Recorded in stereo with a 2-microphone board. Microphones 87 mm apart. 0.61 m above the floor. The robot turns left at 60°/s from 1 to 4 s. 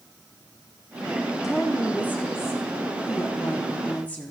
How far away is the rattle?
No rattle in this recording.